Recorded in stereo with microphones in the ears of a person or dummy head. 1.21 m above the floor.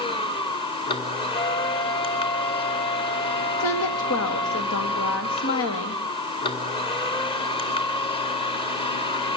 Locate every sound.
0.0 s a machine running: 30° left (ahead or behind), 1.9 m
1.3 s a flute: 50° left (ahead or behind), 1.9 m
3.6 s a woman speaking: 70° left (ahead or behind), 2 m